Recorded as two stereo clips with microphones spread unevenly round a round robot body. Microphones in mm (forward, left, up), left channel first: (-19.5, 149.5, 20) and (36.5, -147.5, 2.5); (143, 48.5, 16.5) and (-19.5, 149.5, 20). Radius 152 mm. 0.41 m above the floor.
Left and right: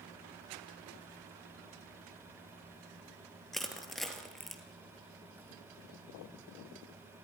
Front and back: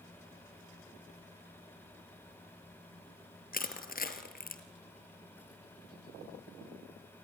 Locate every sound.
3.5 s crushing: 10° left, 2.5 m